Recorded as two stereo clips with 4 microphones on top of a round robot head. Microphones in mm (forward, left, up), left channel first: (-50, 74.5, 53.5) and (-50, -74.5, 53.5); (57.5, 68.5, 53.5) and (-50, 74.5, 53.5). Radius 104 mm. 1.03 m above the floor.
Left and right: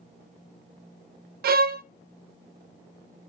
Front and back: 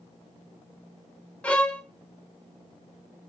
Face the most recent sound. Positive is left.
turn(degrees=-85)